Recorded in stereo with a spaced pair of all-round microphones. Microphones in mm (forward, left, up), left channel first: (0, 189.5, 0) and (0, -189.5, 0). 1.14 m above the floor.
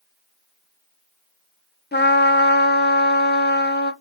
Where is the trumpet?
25° left (ahead or behind), 0.6 m.